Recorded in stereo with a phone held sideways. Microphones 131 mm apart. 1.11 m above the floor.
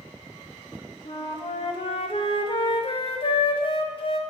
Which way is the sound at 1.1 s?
45° left (ahead or behind).